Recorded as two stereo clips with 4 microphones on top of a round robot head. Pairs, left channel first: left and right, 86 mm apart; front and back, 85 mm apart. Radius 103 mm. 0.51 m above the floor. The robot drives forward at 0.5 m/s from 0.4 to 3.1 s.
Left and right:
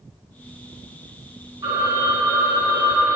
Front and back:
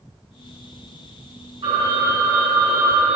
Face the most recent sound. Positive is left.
turn(degrees=-145)